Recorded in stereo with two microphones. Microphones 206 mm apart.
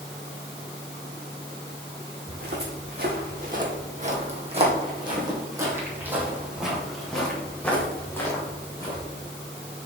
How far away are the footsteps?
About 2.5 m.